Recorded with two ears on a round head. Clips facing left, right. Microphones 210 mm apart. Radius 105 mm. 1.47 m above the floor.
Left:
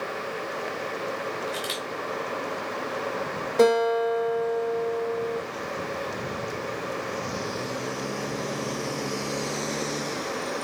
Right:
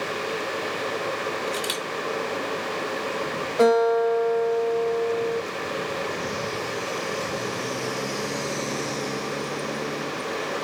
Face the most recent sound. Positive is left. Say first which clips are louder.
# right 2 dB
turn(degrees=45)  # may be behind; listen again after turning